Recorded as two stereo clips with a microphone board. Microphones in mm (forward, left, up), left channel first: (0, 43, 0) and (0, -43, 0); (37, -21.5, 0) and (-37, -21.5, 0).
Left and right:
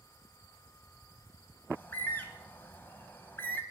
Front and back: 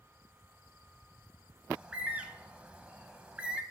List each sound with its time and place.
1.7 s a bird: 125° left, 0.7 m